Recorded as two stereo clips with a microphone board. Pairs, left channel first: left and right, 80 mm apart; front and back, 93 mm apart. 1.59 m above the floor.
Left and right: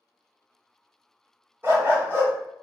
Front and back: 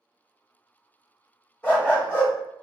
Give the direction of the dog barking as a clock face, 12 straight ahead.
2 o'clock.